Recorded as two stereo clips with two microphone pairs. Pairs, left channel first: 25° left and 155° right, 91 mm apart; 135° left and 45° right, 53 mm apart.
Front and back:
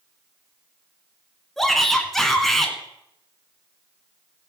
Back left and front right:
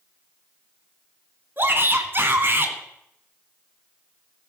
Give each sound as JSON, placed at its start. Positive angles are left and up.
{"t": 1.6, "sound": "a shout", "azimuth_deg": -60, "distance_m": 1.5}